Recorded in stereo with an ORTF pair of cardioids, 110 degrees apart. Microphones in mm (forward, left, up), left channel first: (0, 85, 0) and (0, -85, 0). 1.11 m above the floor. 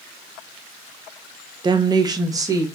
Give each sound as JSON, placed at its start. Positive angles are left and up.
{"t": 1.6, "sound": "a woman speaking", "azimuth_deg": -25, "distance_m": 0.5}